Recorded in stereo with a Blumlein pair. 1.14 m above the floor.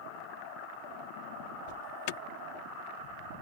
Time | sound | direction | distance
1.7 | an alarm | 45° left | ?